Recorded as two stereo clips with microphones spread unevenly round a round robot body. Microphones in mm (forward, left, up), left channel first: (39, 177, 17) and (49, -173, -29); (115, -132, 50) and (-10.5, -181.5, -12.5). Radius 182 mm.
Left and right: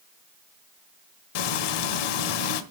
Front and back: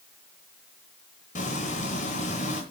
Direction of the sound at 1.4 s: 90° left.